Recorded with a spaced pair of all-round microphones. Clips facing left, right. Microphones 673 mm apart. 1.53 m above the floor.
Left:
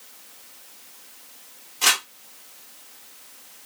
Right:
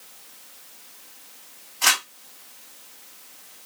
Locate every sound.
1.8 s crumpling: 60° left (ahead or behind), 1.3 m